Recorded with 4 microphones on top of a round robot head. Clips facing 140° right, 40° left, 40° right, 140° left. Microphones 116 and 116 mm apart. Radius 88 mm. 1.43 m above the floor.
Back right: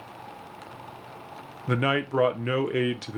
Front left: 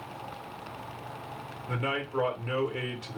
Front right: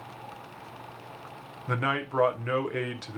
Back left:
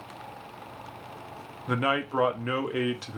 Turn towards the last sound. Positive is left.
turn(degrees=-140)